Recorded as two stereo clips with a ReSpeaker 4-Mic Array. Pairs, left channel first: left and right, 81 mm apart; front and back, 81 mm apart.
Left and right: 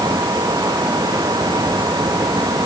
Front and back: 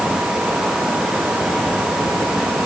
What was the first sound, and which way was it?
Only background noise.